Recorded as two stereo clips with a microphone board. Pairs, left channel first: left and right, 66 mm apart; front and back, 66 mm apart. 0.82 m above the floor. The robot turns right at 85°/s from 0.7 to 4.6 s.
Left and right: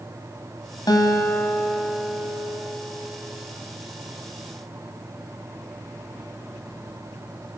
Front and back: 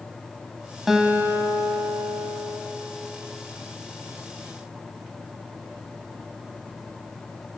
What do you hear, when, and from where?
0.9 s a guitar: 95° left, 2 m; by 2.6 s 120° right, 2 m